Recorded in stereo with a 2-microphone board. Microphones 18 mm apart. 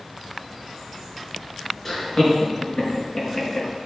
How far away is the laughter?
About 5.5 m.